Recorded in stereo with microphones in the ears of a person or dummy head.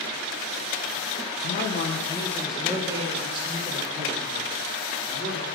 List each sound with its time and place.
1.4 s a man speaking: 70° left (ahead or behind), 1.0 m; by 5.5 s 40° right (ahead or behind), 4.5 m